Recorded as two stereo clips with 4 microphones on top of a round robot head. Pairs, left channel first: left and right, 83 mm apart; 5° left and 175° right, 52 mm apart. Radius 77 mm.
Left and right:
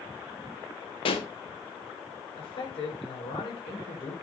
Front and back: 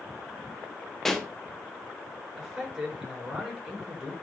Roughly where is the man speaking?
Left.